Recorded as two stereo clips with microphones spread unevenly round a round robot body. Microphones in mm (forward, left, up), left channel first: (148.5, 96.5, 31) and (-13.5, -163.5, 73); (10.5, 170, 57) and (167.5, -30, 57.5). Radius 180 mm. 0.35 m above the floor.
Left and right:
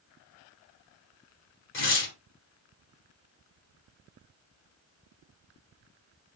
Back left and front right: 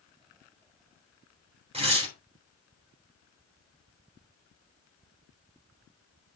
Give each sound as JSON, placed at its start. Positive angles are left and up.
{"t": 1.7, "sound": "tearing paper", "azimuth_deg": 15, "distance_m": 3.5}